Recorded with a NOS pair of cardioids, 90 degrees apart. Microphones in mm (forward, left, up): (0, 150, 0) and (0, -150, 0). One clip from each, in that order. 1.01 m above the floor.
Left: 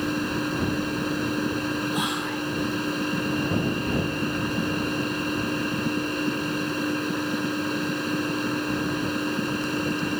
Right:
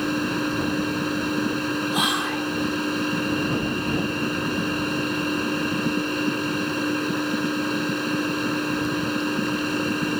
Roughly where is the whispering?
Ahead right.